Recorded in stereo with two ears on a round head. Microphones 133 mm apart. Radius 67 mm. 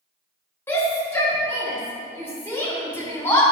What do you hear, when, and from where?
0.7 s a shout: 15° left (ahead or behind), 2 m